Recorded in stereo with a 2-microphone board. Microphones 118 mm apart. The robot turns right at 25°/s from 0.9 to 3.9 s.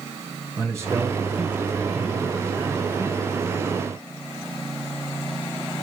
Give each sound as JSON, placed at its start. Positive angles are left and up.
{"t": 0.6, "sound": "a man speaking", "azimuth_deg": -25, "distance_m": 5.0}